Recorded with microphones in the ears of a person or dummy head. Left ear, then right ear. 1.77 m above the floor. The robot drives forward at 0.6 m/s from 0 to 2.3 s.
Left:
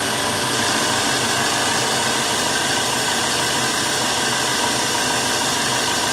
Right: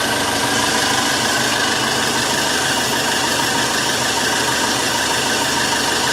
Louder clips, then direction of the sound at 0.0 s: Right 3 dB; 20° right (ahead or behind).